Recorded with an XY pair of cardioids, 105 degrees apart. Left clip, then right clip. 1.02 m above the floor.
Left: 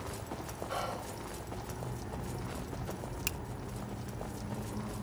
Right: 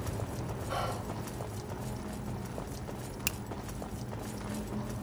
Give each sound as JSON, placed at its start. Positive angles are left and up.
{"t": 0.7, "sound": "whispering", "azimuth_deg": -5, "distance_m": 0.8}
{"t": 3.3, "sound": "a finger snap", "azimuth_deg": -15, "distance_m": 0.8}